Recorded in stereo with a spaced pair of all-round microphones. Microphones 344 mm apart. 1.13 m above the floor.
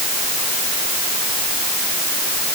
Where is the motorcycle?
No motorcycle in this recording.